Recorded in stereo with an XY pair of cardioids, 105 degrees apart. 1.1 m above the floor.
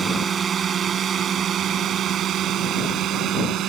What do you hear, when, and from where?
0.0 s a drone: 45° right; by 3.7 s 75° right